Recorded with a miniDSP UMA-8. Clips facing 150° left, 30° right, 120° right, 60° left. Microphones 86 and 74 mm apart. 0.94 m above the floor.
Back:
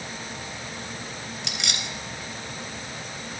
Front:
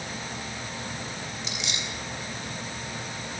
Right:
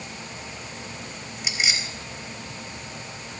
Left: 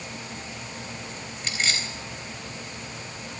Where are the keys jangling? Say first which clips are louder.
Back 3 dB, right 1 dB; 160° left, 3.5 m.